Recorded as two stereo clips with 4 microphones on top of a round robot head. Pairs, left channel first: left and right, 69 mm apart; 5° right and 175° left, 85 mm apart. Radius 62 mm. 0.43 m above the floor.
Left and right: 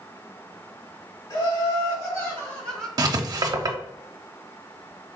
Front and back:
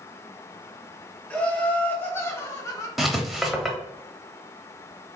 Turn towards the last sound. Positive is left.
turn(degrees=-95)